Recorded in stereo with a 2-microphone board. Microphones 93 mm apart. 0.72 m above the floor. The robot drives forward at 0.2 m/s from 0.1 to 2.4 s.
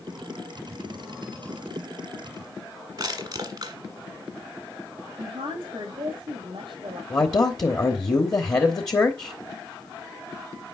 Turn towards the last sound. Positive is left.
turn(degrees=40)  # may be behind; listen again after turning